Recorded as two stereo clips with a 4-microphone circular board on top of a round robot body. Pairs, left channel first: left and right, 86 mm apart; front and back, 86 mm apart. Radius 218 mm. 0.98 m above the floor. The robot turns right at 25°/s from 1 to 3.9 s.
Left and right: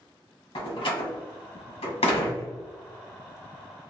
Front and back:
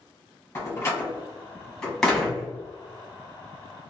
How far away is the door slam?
About 1.0 m.